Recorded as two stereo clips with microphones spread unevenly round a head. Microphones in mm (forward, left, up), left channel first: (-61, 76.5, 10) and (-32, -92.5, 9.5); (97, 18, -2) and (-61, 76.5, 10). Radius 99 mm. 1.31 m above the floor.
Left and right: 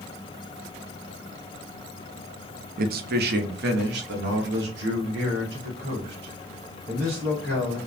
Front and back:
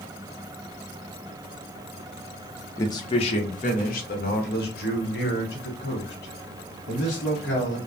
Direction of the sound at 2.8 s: 90° right.